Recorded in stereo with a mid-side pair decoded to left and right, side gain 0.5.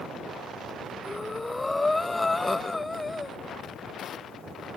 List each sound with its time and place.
1.0 s breathing: 15° left, 0.9 m